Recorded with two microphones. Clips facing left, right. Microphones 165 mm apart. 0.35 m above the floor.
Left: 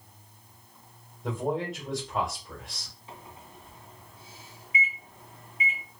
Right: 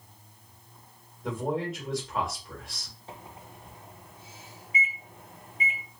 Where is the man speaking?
Centre (ahead or behind), 1.4 m.